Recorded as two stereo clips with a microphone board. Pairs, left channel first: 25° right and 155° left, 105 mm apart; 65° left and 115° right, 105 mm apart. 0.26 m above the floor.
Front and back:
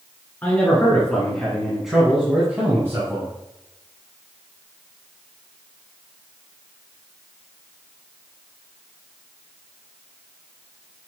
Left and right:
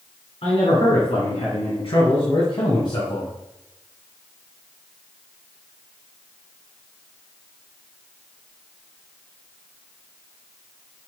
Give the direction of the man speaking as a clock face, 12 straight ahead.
10 o'clock.